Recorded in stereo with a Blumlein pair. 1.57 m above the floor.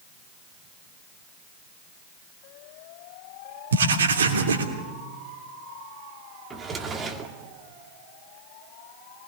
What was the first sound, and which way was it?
Writing, 65° right.